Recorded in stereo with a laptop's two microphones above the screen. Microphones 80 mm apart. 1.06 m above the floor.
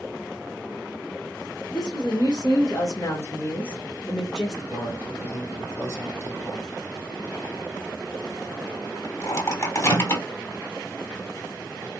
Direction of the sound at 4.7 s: 40° left (ahead or behind).